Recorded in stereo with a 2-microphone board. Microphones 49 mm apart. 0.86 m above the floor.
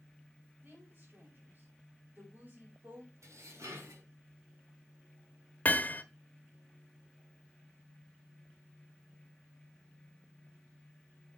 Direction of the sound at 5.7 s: 30° left (ahead or behind).